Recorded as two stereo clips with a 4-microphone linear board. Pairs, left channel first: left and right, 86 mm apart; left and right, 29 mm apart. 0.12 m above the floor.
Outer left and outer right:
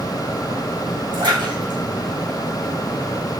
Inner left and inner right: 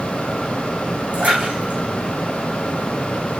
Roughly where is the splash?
Right.